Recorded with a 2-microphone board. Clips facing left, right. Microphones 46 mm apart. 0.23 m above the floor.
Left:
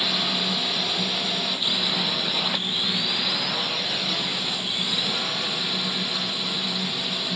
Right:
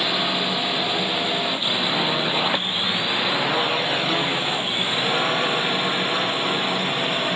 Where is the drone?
20° right (ahead or behind); by 7.4 s 40° right (ahead or behind).